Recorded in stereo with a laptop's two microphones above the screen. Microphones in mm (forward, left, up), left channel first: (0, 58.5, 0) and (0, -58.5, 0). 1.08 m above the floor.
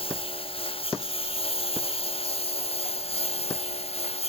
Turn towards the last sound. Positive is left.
turn(degrees=60)  # may be behind; listen again after turning